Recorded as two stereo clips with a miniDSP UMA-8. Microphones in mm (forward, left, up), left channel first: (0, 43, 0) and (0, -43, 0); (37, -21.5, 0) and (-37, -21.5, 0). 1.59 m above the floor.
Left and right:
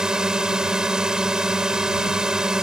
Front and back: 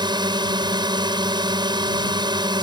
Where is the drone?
175° right.